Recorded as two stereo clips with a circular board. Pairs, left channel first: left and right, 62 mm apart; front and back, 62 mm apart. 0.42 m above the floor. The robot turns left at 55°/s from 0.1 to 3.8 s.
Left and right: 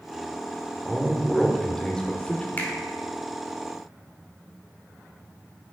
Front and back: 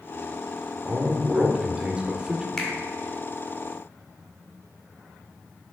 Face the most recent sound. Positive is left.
turn(degrees=5)